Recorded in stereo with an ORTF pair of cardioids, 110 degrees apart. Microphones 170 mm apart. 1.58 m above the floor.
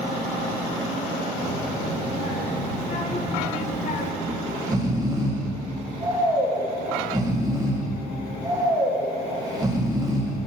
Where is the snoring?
20° right, 1.4 m.